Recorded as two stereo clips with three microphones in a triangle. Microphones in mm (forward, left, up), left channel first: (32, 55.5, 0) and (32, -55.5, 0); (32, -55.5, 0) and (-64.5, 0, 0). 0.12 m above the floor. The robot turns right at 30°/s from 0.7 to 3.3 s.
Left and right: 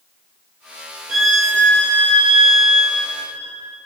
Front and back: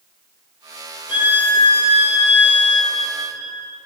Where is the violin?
15° right, 1.9 m; by 3.5 s 50° left, 1.9 m.